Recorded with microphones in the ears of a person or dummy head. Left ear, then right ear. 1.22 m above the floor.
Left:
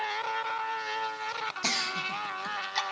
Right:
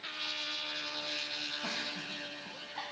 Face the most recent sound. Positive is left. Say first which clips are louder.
# left 8 dB
turn(degrees=80)